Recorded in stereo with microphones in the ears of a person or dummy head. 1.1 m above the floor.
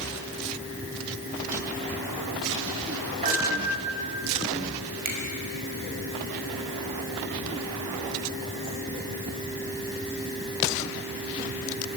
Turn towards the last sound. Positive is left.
turn(degrees=-50)  # may be behind; listen again after turning